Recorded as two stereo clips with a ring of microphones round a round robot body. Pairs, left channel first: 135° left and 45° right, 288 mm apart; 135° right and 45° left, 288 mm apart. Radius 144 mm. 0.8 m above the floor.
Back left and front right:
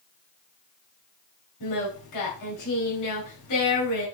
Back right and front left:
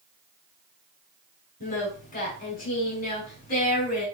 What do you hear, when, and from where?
1.6 s singing: 160° left, 5 m